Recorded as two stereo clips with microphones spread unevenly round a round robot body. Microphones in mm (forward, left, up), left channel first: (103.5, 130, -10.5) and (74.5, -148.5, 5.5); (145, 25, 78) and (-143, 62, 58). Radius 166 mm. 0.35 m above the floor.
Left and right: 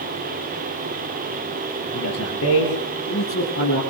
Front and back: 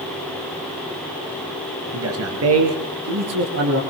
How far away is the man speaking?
About 6 m.